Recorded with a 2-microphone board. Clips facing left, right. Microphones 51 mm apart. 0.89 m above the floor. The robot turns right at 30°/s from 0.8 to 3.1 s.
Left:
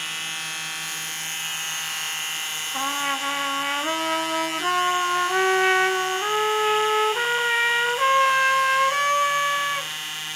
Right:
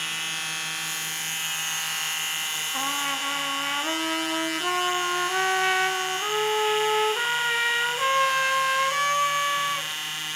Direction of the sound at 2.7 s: 5° left (ahead or behind).